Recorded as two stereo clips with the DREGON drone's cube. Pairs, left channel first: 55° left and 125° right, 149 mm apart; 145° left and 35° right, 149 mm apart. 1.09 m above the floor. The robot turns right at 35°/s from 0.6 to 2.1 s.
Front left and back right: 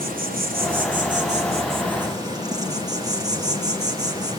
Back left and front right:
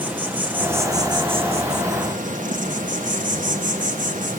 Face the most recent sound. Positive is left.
turn(degrees=-60)